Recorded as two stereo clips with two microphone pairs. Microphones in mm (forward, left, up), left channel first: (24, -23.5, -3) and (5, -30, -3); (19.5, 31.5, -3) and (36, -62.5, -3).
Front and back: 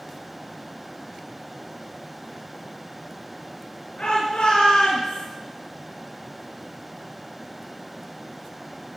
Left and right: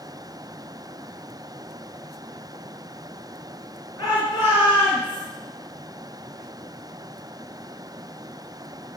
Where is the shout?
45° left, 6.5 m; by 5.2 s 55° left, 8 m.